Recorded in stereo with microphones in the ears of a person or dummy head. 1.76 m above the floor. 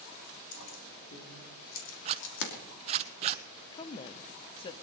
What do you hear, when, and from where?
0.5 s keys jangling: 75° left (ahead or behind), 3.5 m; by 2.5 s 70° left (ahead or behind), 2.5 m
2.0 s a zipper: 40° right (ahead or behind), 0.8 m
3.7 s a woman speaking: 30° left (ahead or behind), 0.7 m